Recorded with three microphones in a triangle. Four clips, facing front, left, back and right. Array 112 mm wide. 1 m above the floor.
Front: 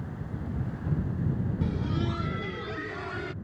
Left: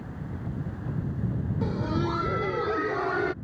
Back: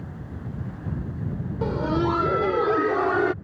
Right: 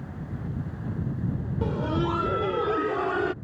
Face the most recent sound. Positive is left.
turn(degrees=-175)